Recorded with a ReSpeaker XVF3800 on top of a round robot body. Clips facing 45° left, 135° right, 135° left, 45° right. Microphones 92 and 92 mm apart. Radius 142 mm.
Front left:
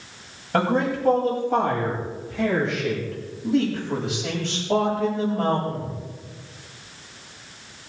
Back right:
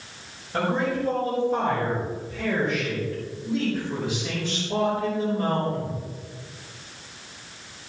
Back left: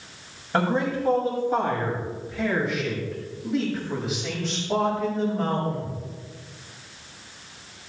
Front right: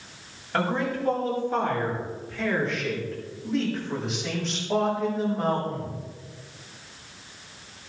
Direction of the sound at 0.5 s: 65° left.